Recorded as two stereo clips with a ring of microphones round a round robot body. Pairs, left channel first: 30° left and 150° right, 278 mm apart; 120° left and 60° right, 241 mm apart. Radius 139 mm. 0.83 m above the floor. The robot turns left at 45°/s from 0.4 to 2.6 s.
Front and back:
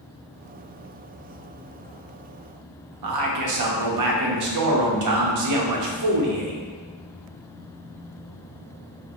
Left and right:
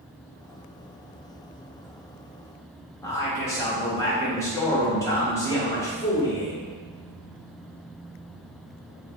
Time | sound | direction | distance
3.0 | a man speaking | 160° right | 0.8 m